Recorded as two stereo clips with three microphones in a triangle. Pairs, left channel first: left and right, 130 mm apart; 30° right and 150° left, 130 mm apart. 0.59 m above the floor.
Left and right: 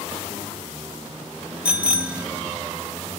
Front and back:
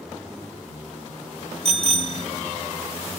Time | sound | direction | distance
1.6 | a bicycle bell | 170° right | 2 m